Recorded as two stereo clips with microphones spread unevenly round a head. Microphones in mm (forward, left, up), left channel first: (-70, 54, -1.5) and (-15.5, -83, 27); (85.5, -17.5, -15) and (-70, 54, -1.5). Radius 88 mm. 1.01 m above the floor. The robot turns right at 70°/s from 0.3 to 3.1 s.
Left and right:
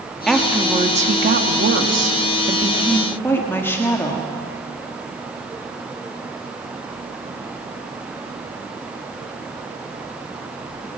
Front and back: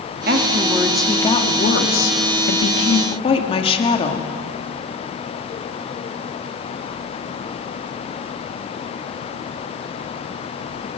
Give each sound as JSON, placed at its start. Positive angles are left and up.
{"t": 0.3, "sound": "a woman speaking", "azimuth_deg": -160, "distance_m": 1.8}